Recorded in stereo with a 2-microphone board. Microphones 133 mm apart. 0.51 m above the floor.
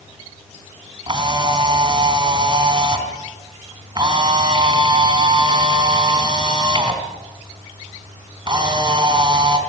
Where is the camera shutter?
35° right (ahead or behind), 3.5 m.